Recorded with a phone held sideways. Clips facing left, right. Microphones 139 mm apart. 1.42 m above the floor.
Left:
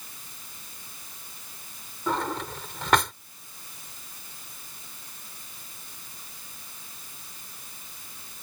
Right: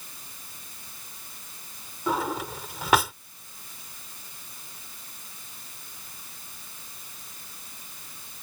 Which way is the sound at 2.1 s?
5° right (ahead or behind).